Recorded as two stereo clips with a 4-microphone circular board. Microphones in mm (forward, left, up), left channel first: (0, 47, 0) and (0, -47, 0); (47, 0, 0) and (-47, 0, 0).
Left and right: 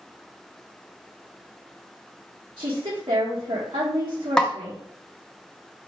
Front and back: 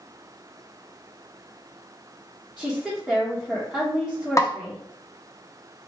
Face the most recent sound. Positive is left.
turn(degrees=10)